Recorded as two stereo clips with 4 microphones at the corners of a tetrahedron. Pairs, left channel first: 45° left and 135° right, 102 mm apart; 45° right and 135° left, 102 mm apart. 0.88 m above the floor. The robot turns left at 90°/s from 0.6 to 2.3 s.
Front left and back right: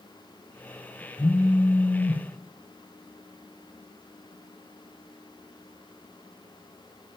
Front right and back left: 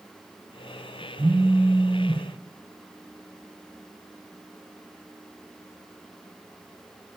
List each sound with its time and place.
1.2 s a phone buzzing: 90° left, 0.6 m; by 2.2 s 5° right, 0.6 m